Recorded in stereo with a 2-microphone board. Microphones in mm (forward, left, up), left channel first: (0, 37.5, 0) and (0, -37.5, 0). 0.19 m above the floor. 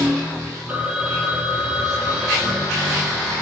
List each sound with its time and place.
0.7 s a phone ringing: 20° right (ahead or behind), 4.5 m